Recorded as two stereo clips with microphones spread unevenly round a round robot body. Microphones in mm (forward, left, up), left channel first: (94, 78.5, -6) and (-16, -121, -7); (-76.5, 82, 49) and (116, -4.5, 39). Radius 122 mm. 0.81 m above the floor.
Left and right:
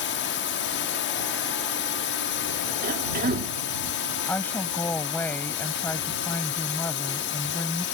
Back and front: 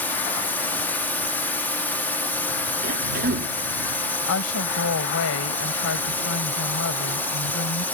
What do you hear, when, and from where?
0.0 s a drone: 75° left
2.8 s a cough: 70° right
4.3 s a woman speaking: 145° left